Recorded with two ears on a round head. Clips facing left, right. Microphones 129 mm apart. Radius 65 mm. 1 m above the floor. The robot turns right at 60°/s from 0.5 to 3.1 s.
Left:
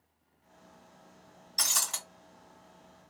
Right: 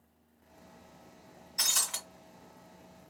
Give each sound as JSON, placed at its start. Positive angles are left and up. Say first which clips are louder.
{"t": 1.6, "sound": "breaking glass", "louder": "left 2 dB", "side_deg": 30, "distance_m": 1.7}